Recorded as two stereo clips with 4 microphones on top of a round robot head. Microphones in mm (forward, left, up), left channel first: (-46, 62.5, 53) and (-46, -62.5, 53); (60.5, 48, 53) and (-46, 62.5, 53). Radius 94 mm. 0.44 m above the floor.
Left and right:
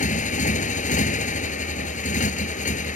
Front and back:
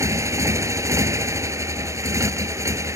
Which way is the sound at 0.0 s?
110° left.